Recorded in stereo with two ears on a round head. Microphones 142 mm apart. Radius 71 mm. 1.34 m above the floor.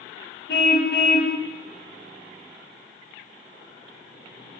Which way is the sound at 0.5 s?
65° left (ahead or behind).